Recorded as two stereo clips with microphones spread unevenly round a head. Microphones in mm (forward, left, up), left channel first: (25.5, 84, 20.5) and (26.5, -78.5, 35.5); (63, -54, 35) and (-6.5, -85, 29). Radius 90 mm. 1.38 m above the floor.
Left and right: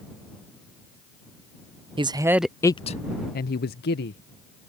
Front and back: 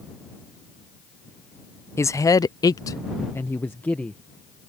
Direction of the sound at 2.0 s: 30° right.